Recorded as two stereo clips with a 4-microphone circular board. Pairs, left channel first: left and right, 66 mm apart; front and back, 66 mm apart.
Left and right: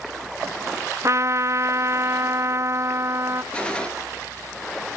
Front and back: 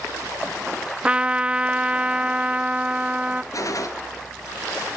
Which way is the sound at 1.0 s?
110° right.